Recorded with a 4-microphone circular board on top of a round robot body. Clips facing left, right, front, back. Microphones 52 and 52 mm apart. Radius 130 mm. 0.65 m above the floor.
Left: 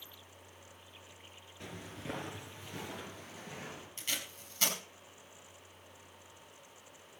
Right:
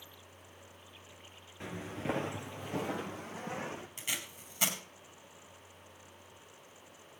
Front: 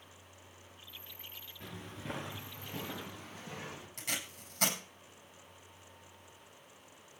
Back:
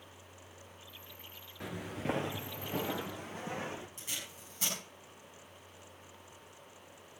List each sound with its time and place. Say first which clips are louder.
1.6 s footsteps: right 7 dB, back 8 dB; 155° right, 0.7 m; by 3.9 s 130° right, 2.5 m
4.0 s tape being pulled: even, front 4 dB; 10° right, 6 m